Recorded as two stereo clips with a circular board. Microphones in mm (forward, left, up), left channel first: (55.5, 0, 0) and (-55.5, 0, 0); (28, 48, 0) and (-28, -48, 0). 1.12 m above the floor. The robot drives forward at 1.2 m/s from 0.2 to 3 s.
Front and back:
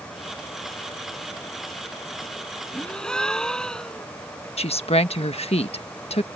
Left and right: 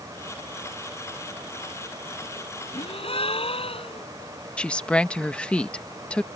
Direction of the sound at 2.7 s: 75° left.